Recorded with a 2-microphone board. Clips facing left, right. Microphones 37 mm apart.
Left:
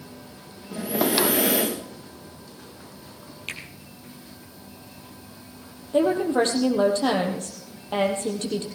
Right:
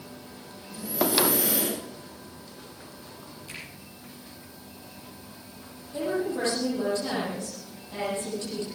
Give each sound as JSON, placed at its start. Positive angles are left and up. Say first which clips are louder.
{"t": 0.7, "sound": "breathing", "louder": "left 3 dB", "side_deg": 60, "distance_m": 4.0}
{"t": 3.5, "sound": "a finger snap", "louder": "left 7 dB", "side_deg": 70, "distance_m": 3.0}
{"t": 5.9, "sound": "a woman speaking", "louder": "left 8 dB", "side_deg": 60, "distance_m": 3.5}